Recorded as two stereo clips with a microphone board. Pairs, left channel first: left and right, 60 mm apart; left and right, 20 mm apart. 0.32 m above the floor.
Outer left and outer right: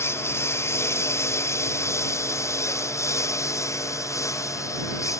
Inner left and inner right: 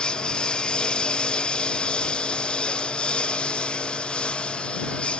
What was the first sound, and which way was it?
A lawn mower, 45° left (ahead or behind).